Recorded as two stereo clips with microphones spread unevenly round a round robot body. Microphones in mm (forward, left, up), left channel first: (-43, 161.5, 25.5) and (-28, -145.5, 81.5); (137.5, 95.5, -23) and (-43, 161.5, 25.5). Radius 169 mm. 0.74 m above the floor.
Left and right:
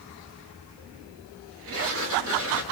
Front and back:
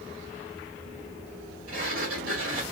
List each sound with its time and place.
1.7 s a sliding door: 135° right, 1.8 m